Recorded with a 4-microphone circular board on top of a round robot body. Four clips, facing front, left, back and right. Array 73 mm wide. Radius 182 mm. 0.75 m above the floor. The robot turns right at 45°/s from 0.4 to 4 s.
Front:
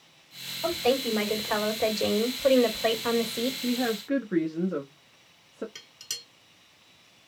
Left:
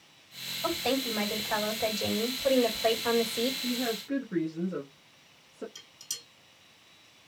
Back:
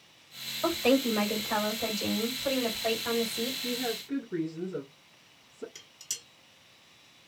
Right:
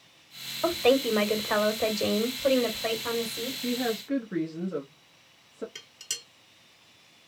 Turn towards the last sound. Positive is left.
turn(degrees=-60)